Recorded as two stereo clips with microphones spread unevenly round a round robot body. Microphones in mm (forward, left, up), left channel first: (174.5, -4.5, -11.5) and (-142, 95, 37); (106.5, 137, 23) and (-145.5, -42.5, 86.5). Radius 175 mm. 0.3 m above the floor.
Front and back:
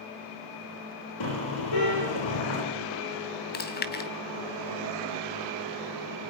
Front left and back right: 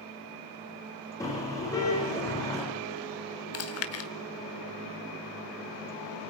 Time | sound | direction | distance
1.2 | a car horn | 45° right | 10 m
3.5 | chewing | 30° left | 2.5 m